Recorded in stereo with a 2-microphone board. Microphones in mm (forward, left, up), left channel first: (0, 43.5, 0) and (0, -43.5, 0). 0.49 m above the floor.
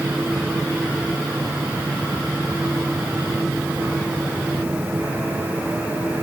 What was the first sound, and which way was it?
Only background noise.